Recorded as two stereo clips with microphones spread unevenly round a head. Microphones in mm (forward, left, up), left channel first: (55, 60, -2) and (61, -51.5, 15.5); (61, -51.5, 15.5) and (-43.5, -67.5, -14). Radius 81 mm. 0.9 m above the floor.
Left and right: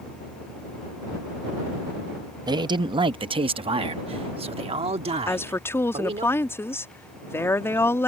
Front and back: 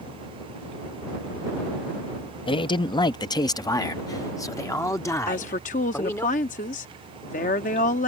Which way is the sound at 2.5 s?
35° right.